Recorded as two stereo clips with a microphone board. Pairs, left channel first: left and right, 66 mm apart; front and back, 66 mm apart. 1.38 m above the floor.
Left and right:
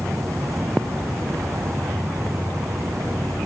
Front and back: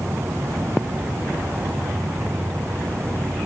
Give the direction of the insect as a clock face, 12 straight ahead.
4 o'clock.